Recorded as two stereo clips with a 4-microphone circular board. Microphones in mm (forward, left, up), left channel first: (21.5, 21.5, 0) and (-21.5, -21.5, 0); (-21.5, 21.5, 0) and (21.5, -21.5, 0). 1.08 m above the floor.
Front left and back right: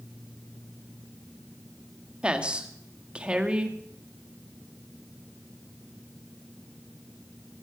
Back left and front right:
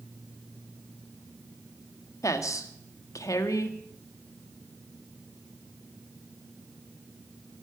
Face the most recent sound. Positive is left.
turn(degrees=150)